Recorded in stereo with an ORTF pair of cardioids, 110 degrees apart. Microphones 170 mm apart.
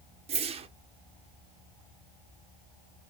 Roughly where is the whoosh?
Ahead right.